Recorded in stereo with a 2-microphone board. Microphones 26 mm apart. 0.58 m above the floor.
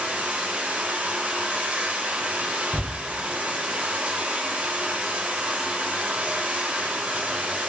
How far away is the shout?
About 1.1 m.